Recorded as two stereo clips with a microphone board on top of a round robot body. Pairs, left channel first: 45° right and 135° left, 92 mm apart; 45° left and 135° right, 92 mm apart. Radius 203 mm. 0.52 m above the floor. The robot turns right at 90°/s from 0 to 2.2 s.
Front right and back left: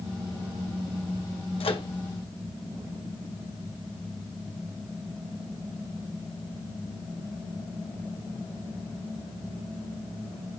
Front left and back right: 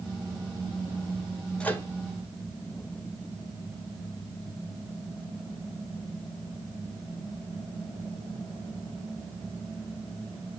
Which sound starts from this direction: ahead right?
A microwave, at 1.6 s.